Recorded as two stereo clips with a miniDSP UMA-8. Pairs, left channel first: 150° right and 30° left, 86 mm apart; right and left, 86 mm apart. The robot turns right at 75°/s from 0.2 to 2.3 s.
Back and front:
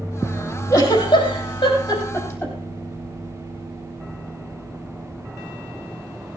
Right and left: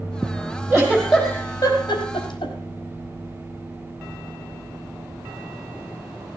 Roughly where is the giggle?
Behind left.